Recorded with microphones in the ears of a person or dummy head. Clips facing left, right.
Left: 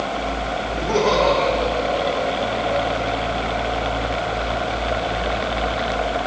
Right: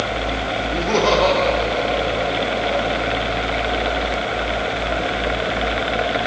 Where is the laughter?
75° right (ahead or behind), 1.4 m; by 3.1 s 70° right (ahead or behind), 4 m.